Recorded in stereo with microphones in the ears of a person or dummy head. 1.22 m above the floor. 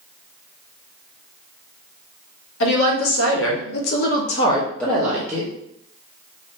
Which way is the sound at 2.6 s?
65° left (ahead or behind).